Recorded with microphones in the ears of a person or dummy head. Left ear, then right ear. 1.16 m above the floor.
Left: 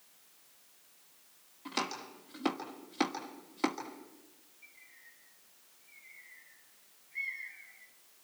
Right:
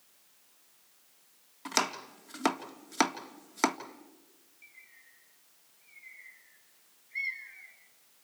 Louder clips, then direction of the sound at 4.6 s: Right 2 dB; 60° right (ahead or behind).